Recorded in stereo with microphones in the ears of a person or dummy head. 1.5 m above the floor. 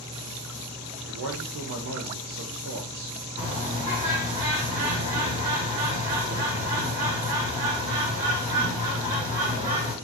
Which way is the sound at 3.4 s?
40° right (ahead or behind).